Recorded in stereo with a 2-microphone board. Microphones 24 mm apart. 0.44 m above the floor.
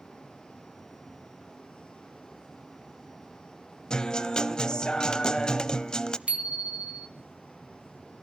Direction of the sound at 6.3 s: 55° right (ahead or behind).